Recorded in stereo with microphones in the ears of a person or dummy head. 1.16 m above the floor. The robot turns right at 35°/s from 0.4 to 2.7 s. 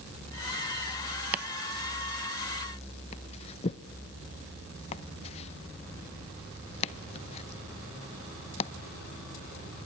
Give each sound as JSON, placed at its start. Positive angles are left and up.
{"t": 1.3, "sound": "chopping", "side_deg": -20, "distance_m": 0.6}